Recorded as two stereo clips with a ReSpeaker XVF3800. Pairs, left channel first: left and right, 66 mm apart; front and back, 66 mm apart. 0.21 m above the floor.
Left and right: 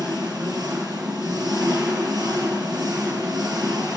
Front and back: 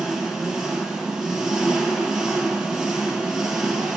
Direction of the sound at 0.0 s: 95° right.